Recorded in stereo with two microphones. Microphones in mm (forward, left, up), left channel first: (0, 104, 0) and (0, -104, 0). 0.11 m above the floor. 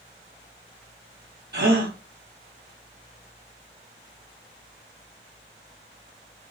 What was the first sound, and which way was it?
A gasp, 55° right (ahead or behind).